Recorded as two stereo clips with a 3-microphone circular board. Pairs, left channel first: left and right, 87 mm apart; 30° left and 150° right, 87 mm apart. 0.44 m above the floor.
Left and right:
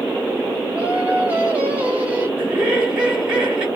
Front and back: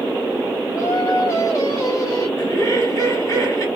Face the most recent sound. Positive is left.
turn(degrees=-15)